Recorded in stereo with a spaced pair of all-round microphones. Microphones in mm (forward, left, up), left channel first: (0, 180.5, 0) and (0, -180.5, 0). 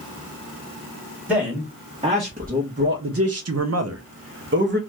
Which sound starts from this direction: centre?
A man speaking, at 1.3 s.